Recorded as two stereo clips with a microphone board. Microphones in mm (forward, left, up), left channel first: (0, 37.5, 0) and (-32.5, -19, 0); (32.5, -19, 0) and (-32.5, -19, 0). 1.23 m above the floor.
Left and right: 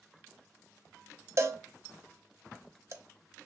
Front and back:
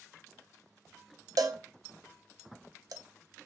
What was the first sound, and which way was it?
A cowbell, 165° right.